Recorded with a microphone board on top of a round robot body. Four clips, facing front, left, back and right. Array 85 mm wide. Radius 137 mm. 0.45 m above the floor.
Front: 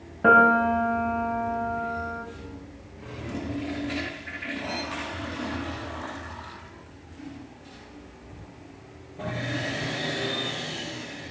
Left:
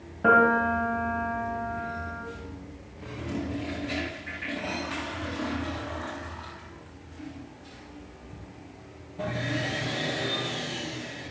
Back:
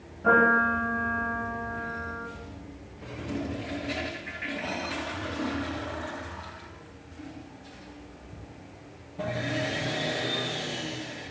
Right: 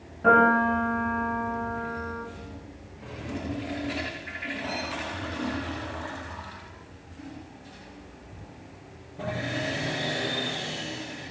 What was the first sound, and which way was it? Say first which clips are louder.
A piano: right 1 dB, front 4 dB; 25° left.